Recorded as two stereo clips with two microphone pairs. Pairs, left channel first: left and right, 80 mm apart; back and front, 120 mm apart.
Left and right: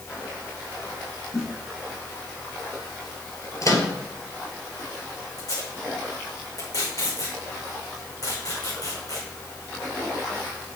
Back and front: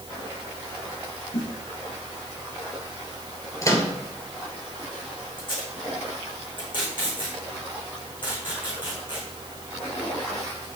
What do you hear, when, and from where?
1.3 s a snare drum: 175° left, 6 m
3.6 s a microwave: 120° left, 2 m
5.4 s tape being pulled: 130° left, 5.5 m